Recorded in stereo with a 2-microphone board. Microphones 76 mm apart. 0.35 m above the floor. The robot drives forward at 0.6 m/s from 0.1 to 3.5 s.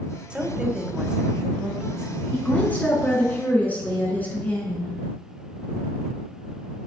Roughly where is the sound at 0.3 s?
Centre.